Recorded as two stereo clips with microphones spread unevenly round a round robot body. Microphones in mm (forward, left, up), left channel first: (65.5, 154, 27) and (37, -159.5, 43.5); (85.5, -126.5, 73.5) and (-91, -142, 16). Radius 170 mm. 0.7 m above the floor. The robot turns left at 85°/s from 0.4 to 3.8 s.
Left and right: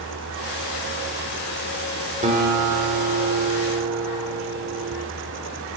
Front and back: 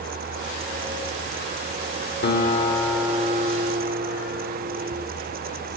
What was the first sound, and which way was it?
A guitar, 25° right.